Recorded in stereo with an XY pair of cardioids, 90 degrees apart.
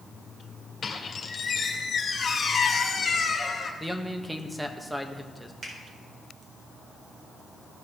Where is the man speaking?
10° right, 1.2 m.